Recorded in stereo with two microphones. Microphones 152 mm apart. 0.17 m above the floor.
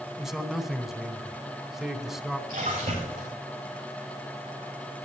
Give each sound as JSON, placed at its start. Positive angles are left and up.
{"t": 0.2, "sound": "a man speaking", "side_deg": 0, "distance_m": 1.1}
{"t": 2.5, "sound": "a splash", "side_deg": -70, "distance_m": 8.5}